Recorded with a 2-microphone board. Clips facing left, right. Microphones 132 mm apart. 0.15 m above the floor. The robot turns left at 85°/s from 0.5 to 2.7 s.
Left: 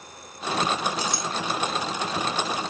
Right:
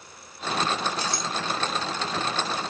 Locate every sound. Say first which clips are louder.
1.0 s a clink: left 1 dB; 15° left (ahead or behind), 0.8 m; by 1.2 s 20° left (ahead or behind), 0.8 m